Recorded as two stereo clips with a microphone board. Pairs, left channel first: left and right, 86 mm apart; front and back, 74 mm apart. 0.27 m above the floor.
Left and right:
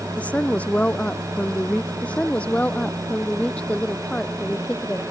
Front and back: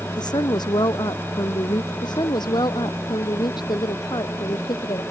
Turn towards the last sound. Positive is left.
turn(degrees=15)